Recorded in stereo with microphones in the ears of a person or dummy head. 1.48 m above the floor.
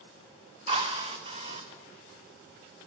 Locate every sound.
0.7 s a drill: 25° right (ahead or behind), 0.5 m